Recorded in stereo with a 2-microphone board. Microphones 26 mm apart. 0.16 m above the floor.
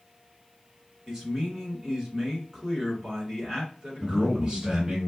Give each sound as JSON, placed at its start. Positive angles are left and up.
{"t": 1.1, "sound": "a man speaking", "side_deg": -30, "distance_m": 1.9}
{"t": 4.0, "sound": "a man speaking", "side_deg": -40, "distance_m": 2.0}